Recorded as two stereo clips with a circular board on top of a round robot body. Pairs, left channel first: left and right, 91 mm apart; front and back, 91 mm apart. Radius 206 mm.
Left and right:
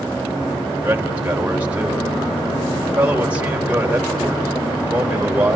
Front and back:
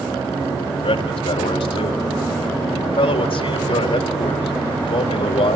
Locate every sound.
0.8 s a man speaking: 15° right, 3.5 m